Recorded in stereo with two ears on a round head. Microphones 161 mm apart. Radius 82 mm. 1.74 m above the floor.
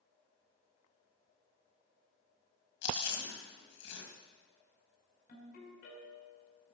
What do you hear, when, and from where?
2.8 s chewing: 70° left (ahead or behind), 2 m
5.3 s a ringtone: 50° left (ahead or behind), 4.5 m